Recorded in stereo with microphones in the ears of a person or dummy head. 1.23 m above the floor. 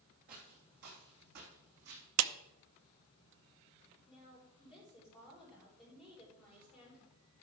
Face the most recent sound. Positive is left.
turn(degrees=0)  # may be behind; listen again after turning